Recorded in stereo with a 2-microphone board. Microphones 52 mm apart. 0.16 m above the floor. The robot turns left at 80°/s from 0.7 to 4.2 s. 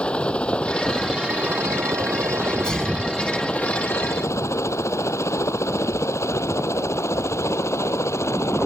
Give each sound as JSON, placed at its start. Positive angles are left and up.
{"t": 0.0, "sound": "a helicopter", "side_deg": 20}
{"t": 2.4, "sound": "a sneeze", "side_deg": 20}